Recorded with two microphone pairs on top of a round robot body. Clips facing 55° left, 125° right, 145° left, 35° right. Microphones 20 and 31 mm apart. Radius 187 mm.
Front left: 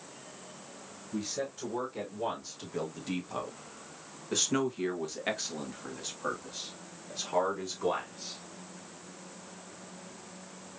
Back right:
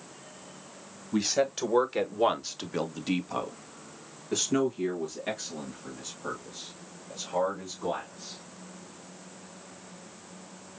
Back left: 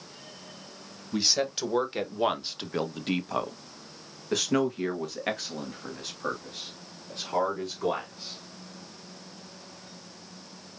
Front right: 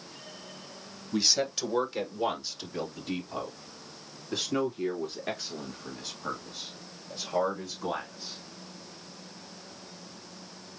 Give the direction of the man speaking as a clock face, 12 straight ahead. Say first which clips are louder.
Back right 9 dB, back left 1 dB; 5 o'clock.